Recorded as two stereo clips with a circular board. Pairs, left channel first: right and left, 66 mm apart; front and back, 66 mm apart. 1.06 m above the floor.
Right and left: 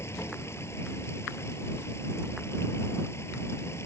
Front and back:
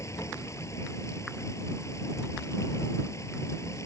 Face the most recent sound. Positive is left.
turn(degrees=-40)